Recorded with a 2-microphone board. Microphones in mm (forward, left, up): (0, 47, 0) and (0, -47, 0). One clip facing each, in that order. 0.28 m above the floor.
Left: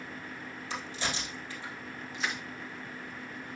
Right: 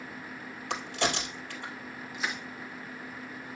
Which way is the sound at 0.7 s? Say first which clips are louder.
Right 6 dB; 65° right (ahead or behind).